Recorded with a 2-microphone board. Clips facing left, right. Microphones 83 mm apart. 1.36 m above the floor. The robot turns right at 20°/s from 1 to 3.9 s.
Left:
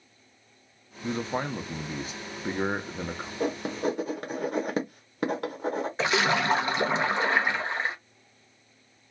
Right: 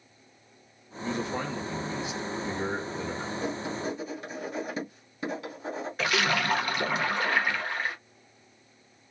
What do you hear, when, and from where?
1.0 s a man speaking: 50° left, 0.6 m; by 3.3 s 95° left, 0.6 m
3.4 s writing: 60° left (ahead or behind), 0.8 m
6.0 s a splash: 25° left (ahead or behind), 0.6 m